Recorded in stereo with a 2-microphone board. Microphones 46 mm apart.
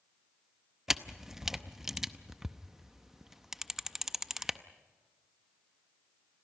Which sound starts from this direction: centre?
A camera shutter, at 0.9 s.